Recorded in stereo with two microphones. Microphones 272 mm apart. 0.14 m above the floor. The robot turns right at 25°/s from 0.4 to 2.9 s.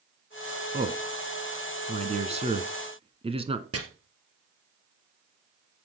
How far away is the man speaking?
About 1.2 m.